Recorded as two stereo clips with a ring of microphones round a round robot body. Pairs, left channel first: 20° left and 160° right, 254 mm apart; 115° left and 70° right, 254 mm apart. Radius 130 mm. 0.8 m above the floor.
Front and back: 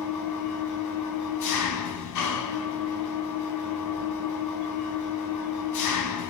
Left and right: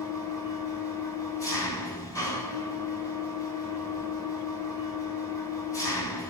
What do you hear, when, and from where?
0.0 s an engine running: 35° left, 3 m